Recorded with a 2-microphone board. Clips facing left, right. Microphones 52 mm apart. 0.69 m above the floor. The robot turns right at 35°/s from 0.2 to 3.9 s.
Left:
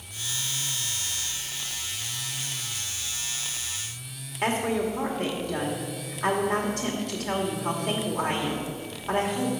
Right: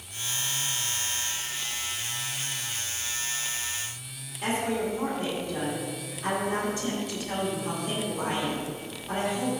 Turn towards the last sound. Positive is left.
turn(degrees=70)  # may be behind; listen again after turning